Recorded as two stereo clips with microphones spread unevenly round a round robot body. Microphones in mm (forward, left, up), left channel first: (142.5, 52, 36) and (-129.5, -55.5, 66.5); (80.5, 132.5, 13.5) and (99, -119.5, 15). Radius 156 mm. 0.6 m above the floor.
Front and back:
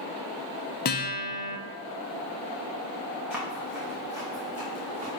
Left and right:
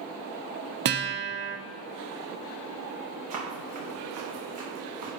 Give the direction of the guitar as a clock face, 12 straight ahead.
1 o'clock.